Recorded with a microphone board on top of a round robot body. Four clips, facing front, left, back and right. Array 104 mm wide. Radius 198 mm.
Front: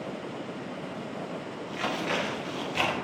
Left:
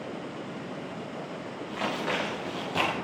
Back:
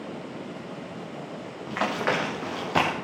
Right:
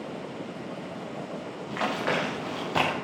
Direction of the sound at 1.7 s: 160° right.